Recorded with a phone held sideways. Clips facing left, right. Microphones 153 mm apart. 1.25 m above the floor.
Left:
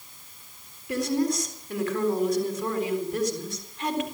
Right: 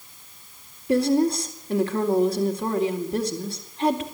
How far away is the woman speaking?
About 3.5 m.